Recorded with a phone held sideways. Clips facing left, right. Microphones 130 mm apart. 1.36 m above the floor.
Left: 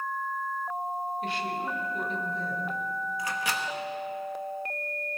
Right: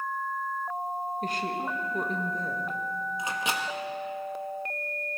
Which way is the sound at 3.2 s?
20° right (ahead or behind).